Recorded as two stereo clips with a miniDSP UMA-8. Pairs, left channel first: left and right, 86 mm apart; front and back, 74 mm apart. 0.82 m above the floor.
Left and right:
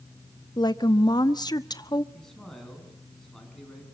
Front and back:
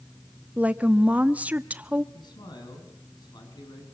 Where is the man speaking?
5° left, 7 m.